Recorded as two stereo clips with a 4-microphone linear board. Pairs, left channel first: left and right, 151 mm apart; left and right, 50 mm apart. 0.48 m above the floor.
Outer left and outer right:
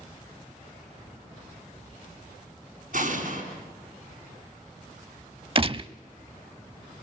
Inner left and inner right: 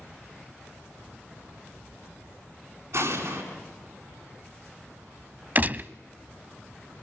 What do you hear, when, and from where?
2.9 s an explosion: 65° right (ahead or behind), 5 m
5.5 s a gunshot: 40° right (ahead or behind), 0.5 m